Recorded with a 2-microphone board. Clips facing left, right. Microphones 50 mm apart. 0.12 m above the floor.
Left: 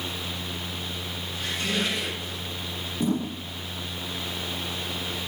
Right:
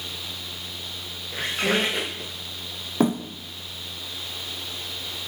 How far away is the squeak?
About 5.5 m.